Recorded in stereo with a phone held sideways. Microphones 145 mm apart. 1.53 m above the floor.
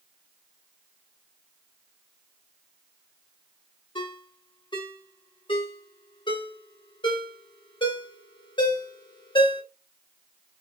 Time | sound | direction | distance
4.0 | a ringtone | 35° left (ahead or behind) | 0.9 m